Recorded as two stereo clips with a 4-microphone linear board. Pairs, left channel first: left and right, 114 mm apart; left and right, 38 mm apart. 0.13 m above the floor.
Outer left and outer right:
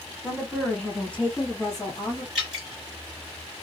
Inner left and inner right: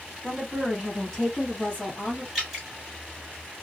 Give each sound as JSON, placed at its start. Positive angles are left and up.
{"t": 0.2, "sound": "a woman speaking", "side_deg": -10, "distance_m": 1.2}
{"t": 2.4, "sound": "dripping", "side_deg": 0, "distance_m": 1.8}